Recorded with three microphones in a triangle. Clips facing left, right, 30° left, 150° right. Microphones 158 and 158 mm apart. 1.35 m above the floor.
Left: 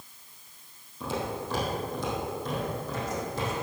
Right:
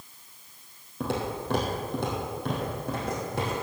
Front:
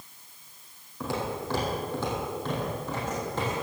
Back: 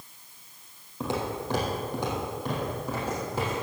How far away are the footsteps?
About 3 m.